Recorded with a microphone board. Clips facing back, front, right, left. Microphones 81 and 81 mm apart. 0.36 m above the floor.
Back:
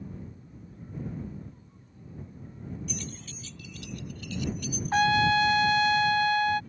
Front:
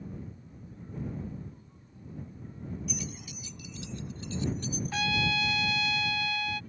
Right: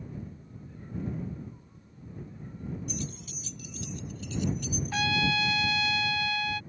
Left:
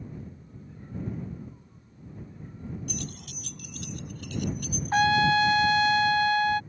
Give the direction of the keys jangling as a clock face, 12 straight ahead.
9 o'clock.